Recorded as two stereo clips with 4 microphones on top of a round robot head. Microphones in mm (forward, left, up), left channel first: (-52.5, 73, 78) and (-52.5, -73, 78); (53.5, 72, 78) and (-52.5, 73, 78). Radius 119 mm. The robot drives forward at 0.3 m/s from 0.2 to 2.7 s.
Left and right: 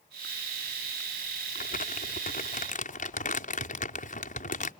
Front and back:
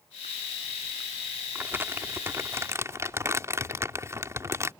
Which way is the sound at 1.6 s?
110° left.